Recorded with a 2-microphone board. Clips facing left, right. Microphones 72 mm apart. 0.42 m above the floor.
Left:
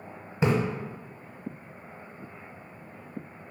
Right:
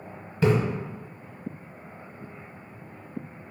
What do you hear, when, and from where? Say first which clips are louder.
0.4 s a splash: right 3 dB; 20° left (ahead or behind), 0.8 m